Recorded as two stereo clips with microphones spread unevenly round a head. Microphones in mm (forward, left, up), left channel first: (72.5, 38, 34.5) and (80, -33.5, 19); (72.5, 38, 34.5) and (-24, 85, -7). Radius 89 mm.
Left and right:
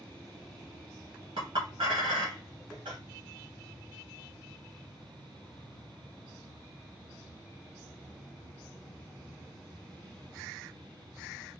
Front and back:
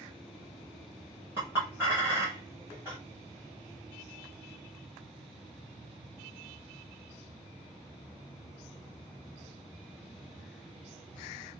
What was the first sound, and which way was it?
A clink, 115° right.